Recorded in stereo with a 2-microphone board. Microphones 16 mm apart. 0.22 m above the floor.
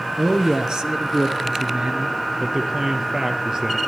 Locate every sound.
0.2 s a man speaking: 70° right (ahead or behind), 3.5 m
2.4 s a man speaking: 40° right (ahead or behind), 4 m